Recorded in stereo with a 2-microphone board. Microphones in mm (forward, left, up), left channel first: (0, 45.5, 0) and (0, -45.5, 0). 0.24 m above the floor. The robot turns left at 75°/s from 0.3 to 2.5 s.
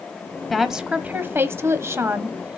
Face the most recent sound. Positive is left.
turn(degrees=-145)